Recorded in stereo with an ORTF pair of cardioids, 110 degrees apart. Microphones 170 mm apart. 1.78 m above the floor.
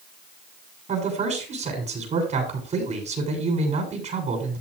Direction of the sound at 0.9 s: 40° right.